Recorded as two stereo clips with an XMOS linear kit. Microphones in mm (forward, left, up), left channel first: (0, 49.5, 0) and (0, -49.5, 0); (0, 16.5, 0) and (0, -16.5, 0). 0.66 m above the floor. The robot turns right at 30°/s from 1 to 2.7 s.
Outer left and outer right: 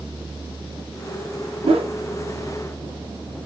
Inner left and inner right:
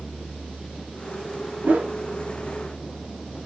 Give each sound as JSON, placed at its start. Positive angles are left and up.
{"t": 1.6, "sound": "a whoosh", "side_deg": -70, "distance_m": 0.6}